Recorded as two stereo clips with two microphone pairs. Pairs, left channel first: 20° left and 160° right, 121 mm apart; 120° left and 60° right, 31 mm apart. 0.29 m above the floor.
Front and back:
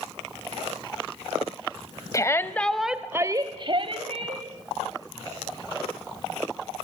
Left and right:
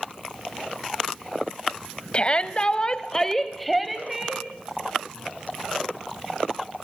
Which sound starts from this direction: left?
A shout, at 2.1 s.